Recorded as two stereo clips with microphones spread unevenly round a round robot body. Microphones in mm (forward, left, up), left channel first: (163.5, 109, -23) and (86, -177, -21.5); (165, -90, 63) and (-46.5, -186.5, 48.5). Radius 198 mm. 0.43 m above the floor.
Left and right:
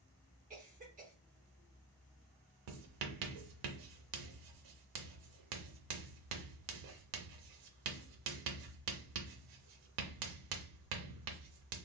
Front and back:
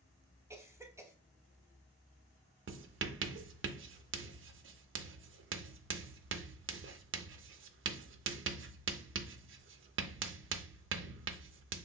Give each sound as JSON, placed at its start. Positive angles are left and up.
{"t": 0.5, "sound": "a cough", "azimuth_deg": -100, "distance_m": 0.8}
{"t": 2.7, "sound": "writing", "azimuth_deg": -115, "distance_m": 0.5}